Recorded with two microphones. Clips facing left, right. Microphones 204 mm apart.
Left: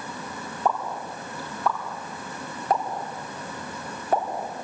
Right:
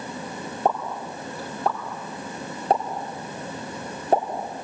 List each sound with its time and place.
0.7 s a pop: 30° right (ahead or behind), 5.5 m